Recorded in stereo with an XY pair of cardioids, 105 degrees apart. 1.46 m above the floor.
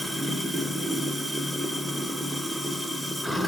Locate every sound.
0.0 s running water: straight ahead, 0.9 m